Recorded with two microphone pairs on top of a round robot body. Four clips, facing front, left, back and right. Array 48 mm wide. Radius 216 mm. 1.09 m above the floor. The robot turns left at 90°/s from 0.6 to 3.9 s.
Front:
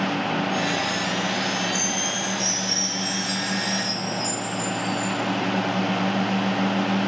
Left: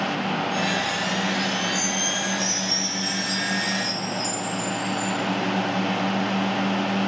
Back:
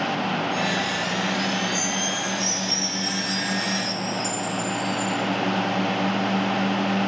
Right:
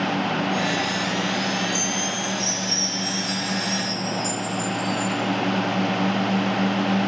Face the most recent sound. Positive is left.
turn(degrees=95)